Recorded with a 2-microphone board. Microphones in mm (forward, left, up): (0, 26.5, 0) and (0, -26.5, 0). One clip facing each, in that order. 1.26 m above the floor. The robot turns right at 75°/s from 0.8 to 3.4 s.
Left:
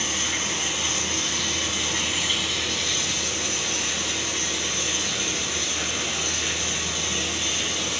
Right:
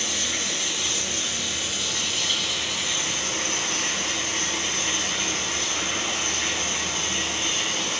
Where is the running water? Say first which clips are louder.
Left 1 dB; 50° left, 1.9 m; by 8.0 s 115° right, 1.9 m.